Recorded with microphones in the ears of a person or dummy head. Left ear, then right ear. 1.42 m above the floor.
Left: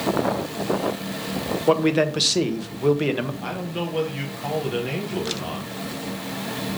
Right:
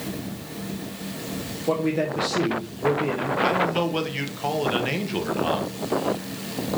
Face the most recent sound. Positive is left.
turn(degrees=-35)  # may be behind; listen again after turning